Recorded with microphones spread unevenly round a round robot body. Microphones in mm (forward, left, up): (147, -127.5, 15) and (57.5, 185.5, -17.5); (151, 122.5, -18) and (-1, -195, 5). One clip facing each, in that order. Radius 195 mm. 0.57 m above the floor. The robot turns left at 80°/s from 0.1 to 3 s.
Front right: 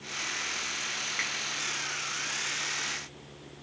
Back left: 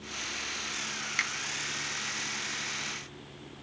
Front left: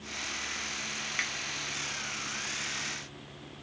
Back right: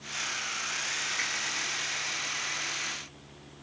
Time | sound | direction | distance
1.2 | a finger snap | 115° left | 0.8 m